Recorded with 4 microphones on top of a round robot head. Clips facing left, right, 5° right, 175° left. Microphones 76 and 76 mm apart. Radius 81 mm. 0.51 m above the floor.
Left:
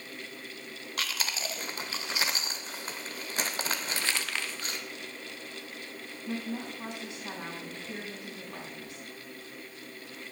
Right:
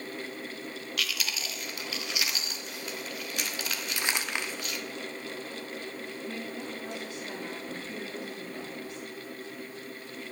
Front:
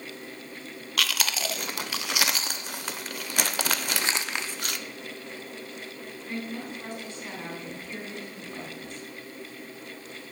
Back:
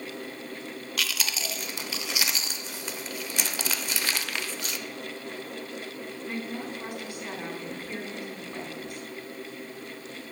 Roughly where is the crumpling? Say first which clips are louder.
Right 2 dB, front 2 dB; ahead right.